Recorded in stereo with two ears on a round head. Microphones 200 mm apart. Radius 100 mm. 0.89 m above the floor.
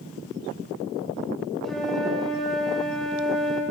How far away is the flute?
About 1.7 m.